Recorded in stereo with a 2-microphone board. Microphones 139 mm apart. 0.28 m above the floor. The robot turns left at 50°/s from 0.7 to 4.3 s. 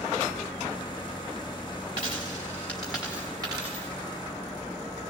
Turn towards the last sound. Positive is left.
turn(degrees=-70)